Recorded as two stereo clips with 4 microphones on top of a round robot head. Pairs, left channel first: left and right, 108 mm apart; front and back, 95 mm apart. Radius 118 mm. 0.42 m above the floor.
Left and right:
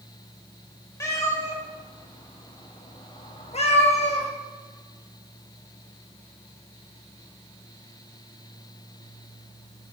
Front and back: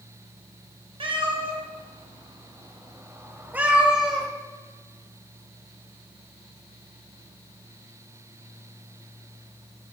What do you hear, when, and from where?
1.0 s a cat meowing: 155° left, 1.8 m; by 4.3 s 90° left, 1.5 m